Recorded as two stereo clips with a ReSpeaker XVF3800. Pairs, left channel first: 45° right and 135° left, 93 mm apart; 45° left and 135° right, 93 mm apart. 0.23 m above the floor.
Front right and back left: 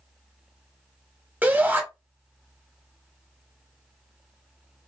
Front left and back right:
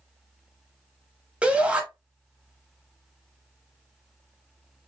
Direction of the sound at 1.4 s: 170° left.